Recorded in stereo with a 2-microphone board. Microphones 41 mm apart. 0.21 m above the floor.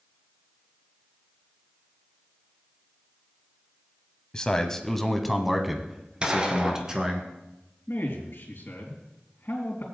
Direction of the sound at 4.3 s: 20° left (ahead or behind).